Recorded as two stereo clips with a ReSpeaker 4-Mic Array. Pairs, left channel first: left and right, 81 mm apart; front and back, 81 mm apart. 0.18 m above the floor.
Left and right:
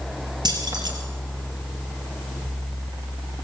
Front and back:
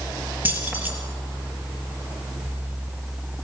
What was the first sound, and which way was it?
Keys jangling, 115° right.